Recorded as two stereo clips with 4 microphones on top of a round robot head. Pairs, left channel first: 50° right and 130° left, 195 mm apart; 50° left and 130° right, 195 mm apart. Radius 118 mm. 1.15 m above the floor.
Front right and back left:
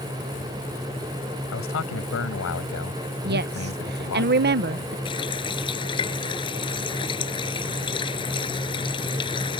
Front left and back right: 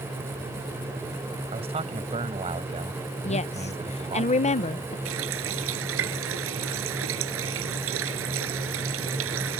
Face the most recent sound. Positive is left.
turn(degrees=-115)